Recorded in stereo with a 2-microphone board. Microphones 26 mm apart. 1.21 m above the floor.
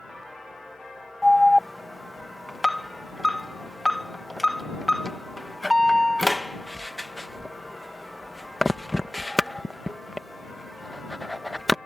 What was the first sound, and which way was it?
An alarm, 5° left (ahead or behind).